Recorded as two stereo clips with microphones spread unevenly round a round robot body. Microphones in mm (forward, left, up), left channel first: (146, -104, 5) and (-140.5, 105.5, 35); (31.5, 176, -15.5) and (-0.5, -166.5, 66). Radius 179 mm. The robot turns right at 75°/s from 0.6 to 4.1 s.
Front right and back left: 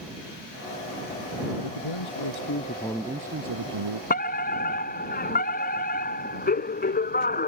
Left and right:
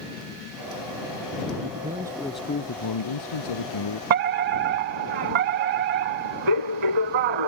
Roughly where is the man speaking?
Ahead right.